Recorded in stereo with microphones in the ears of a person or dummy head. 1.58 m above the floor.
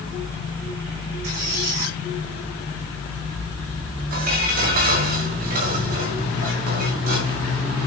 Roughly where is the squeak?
Right.